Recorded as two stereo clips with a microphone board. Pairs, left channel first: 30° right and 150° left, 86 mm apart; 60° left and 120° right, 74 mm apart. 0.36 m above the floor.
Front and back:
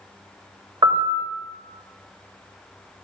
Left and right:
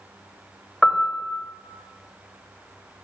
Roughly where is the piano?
Behind left.